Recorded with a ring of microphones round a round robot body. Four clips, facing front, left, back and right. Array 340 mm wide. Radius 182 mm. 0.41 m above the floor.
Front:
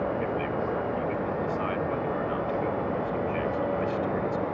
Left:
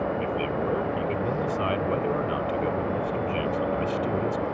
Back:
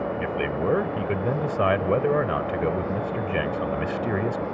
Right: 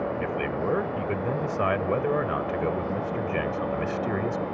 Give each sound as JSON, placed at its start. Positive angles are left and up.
{"t": 0.2, "sound": "a man speaking", "azimuth_deg": -165}